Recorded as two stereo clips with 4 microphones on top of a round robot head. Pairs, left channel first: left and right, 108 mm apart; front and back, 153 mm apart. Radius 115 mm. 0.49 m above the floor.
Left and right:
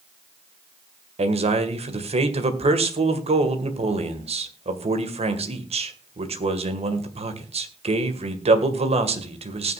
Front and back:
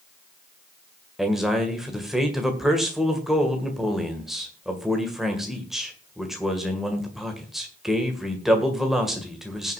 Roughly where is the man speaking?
Right.